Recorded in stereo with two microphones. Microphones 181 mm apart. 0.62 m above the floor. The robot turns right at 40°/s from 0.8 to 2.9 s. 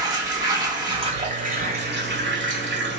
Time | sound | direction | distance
0.0 | running water | 160° right | 1.1 m